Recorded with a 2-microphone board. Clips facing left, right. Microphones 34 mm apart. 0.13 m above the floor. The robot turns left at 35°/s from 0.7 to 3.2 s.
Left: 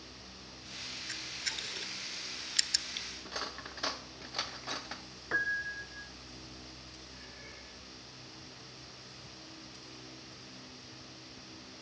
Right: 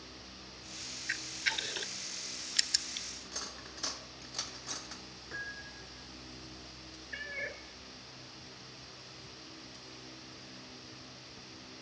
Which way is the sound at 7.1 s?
65° right (ahead or behind).